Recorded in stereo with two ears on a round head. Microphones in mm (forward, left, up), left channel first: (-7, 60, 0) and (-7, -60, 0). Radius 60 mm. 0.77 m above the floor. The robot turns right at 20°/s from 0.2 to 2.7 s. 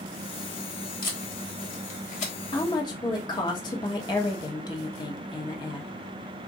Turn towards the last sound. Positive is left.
turn(degrees=30)  # may be behind; listen again after turning